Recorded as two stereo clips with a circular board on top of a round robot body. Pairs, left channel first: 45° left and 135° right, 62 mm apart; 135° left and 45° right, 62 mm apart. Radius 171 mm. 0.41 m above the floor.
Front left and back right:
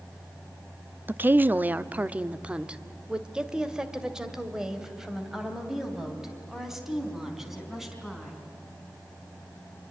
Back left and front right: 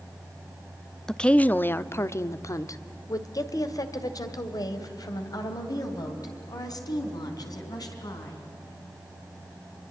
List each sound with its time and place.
1.1 s a woman speaking: 150° right, 0.8 m; by 8.4 s 140° left, 5 m